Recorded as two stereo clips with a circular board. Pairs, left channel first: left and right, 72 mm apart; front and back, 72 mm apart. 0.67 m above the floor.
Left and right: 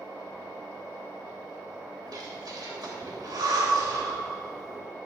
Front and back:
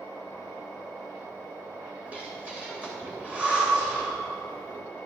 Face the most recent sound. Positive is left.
turn(degrees=-110)